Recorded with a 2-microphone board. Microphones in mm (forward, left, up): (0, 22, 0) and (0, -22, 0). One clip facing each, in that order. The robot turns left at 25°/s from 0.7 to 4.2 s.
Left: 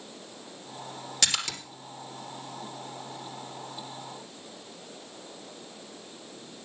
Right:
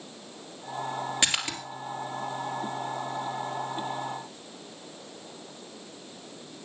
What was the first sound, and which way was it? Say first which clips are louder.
A splash: left 1 dB; 20° right (ahead or behind).